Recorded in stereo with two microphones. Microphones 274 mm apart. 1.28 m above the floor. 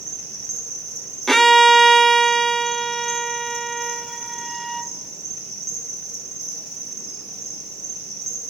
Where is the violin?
Centre (ahead or behind), 0.6 m.